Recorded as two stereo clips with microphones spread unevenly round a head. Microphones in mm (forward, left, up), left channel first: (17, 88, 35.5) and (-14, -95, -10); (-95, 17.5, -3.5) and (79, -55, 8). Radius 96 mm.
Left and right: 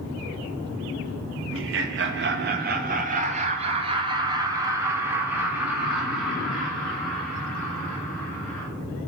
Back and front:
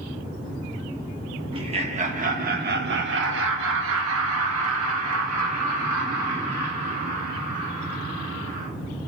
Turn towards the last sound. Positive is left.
turn(degrees=0)